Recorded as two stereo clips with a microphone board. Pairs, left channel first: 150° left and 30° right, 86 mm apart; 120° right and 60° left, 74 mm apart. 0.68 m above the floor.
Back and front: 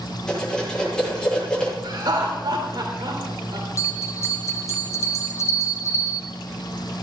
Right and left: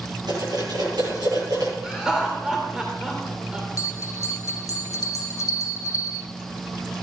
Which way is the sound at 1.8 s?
20° right.